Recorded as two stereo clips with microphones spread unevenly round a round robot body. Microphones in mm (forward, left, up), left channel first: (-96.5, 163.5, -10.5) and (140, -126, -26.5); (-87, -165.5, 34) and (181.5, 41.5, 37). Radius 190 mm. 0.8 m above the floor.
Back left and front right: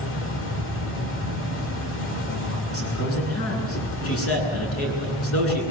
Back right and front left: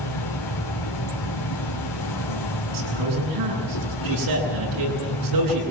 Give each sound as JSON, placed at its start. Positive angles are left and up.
{"t": 0.0, "sound": "an insect", "azimuth_deg": -170, "distance_m": 2.5}
{"t": 2.7, "sound": "a man speaking", "azimuth_deg": 75, "distance_m": 10.0}